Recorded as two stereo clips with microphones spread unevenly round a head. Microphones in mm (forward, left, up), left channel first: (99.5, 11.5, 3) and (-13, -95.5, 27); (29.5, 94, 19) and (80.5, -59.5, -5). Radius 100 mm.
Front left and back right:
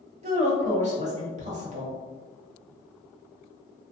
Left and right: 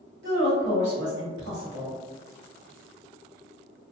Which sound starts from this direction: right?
A woman speaking, at 0.2 s.